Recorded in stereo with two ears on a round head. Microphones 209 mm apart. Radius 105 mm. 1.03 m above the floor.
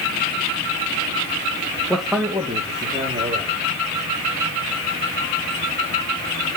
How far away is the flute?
I don't hear a flute.